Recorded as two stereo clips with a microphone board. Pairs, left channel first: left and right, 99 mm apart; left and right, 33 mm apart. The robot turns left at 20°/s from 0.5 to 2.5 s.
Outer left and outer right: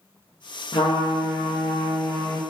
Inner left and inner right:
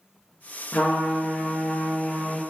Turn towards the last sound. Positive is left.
turn(degrees=30)